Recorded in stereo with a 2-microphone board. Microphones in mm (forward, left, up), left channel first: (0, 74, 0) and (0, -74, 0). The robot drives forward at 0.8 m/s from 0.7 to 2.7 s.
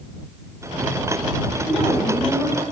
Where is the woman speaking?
50° left (ahead or behind), 2 m; by 2.6 s 40° left (ahead or behind), 2.5 m.